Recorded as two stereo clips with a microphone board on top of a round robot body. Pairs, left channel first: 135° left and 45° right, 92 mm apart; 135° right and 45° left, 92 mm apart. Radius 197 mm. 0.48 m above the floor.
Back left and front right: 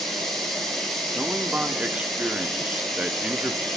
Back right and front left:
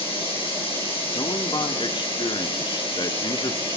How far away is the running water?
About 6 m.